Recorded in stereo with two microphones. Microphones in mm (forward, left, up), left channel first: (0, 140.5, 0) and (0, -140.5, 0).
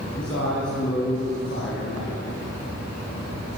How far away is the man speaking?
About 3.5 m.